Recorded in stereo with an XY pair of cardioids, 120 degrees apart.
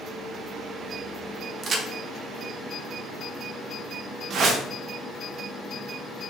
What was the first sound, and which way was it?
A crack, 40° right.